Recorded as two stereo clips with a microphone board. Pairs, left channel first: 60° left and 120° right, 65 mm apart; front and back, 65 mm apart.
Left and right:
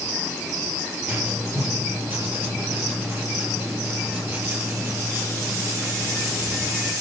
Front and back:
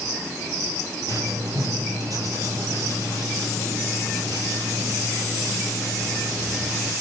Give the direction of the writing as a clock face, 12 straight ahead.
6 o'clock.